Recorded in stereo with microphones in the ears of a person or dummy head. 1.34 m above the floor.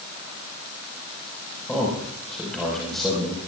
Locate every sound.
1.7 s a man speaking: 5° left (ahead or behind), 5 m